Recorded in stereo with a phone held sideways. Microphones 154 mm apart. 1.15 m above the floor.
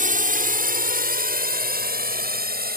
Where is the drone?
60° right (ahead or behind); by 2.8 s 80° right.